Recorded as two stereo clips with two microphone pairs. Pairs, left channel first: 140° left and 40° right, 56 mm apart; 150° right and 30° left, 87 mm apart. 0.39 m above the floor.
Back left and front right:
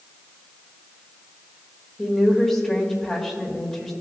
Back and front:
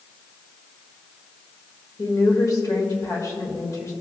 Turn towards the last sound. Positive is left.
turn(degrees=-145)